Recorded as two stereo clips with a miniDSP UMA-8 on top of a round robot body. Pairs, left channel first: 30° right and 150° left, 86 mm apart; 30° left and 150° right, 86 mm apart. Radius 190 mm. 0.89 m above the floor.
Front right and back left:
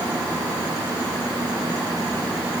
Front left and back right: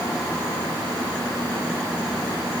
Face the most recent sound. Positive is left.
No sound to turn to.